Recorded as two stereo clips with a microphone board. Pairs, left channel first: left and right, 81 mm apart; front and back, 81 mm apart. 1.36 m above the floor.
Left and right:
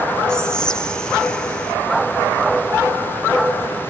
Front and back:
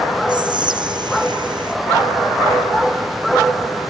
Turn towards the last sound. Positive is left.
turn(degrees=170)